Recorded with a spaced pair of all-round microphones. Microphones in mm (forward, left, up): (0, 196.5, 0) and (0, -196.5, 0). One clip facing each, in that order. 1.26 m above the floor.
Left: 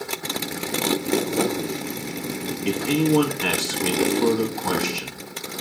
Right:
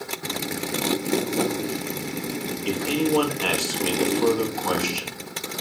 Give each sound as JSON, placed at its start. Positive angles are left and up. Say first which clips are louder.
{"t": 2.6, "sound": "a man speaking", "louder": "left 3 dB", "side_deg": 35, "distance_m": 2.5}